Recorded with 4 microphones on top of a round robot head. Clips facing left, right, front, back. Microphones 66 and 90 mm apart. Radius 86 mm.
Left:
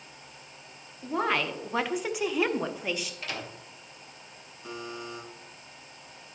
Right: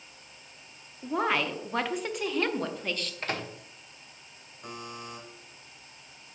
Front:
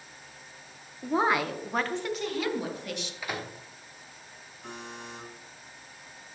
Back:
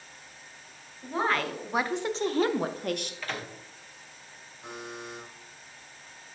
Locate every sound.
1.0 s a woman speaking: 10° right, 0.8 m; by 3.1 s 170° left, 1.1 m
3.2 s a microwave: 75° right, 1.2 m
4.6 s a buzzer: 105° right, 3.5 m